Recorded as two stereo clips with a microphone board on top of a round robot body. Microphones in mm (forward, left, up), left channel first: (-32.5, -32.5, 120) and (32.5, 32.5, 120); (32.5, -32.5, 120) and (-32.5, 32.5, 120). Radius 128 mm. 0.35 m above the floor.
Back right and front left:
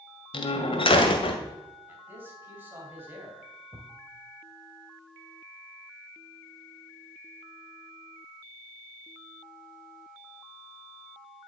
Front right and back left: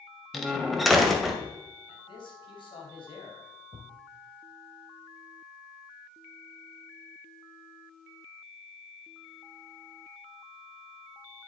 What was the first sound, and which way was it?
A door slam, 135° right.